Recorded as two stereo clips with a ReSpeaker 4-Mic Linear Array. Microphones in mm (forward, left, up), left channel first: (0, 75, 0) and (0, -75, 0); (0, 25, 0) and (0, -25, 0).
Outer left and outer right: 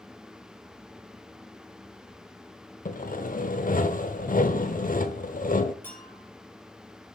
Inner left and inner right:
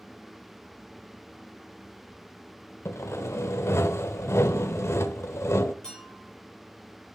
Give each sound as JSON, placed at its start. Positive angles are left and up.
{"t": 2.9, "sound": "sawing", "side_deg": 65, "distance_m": 1.0}
{"t": 5.8, "sound": "a clink", "side_deg": 15, "distance_m": 7.0}